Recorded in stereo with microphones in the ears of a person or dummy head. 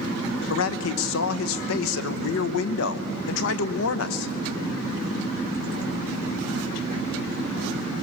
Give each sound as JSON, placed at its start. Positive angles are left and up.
{"t": 0.5, "sound": "a man speaking", "side_deg": 70, "distance_m": 0.9}